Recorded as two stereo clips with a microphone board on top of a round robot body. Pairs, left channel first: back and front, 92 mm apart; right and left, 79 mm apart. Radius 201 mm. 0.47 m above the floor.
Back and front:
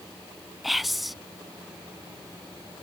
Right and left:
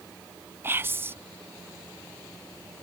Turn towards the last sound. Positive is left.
turn(degrees=90)